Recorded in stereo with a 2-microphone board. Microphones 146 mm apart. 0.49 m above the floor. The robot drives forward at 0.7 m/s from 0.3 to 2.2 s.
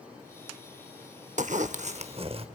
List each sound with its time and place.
1.4 s a zipper: 60° right (ahead or behind), 0.6 m; by 2.5 s 45° right (ahead or behind), 0.8 m